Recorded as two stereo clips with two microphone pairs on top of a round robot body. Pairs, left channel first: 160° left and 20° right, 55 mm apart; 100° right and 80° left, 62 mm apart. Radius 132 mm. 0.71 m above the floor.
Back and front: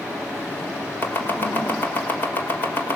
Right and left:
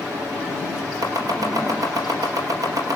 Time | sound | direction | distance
1.0 | chopping | 105° left | 3.5 m